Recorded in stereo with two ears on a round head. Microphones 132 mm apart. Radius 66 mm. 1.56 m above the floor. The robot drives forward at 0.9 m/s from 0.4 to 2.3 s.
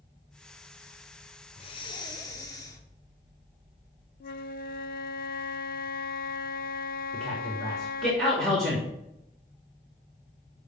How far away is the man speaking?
About 3 m.